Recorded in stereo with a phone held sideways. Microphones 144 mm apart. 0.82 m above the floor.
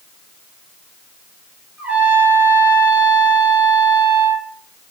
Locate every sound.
1.8 s a trumpet: 15° right (ahead or behind), 3 m